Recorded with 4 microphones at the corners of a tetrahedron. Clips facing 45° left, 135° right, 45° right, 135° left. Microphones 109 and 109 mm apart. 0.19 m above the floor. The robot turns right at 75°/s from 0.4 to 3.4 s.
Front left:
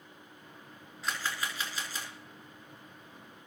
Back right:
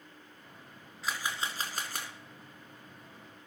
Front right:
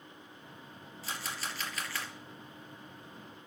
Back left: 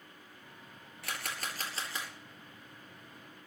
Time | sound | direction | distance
1.0 | a camera shutter | 135° left | 2.5 m